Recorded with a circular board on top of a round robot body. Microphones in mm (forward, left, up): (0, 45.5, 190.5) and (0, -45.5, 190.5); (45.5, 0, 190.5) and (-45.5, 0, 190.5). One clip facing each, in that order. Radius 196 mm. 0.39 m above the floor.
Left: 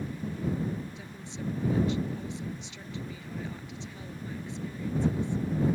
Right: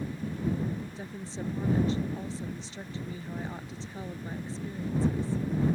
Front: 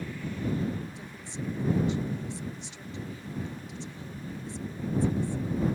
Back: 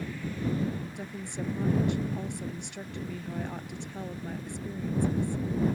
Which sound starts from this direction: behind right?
A woman speaking, at 0.9 s.